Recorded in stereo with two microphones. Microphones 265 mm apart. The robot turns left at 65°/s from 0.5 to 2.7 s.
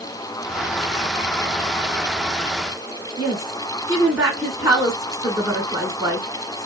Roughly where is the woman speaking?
Centre.